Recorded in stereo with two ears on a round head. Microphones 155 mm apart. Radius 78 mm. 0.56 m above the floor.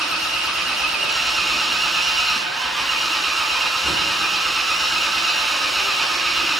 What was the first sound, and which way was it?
An engine running, centre (ahead or behind).